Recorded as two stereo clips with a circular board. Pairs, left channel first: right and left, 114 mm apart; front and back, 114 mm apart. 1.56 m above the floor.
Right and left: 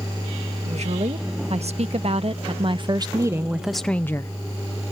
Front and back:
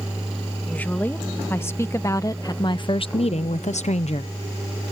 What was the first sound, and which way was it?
A woman speaking, 75° left.